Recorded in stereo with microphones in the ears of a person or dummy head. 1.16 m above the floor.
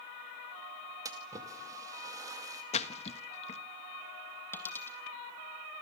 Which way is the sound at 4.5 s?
15° left (ahead or behind).